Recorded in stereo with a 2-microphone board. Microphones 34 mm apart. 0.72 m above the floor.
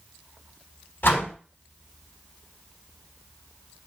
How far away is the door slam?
About 4 m.